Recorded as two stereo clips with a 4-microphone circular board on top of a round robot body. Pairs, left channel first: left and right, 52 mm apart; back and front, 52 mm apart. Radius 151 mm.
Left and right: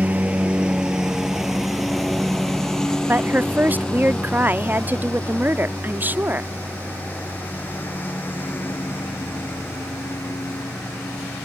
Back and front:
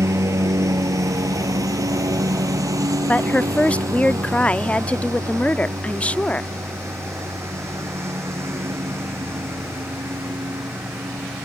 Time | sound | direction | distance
0.0 | a lawn mower | 25° right | ?
3.1 | a woman speaking | 125° right | ?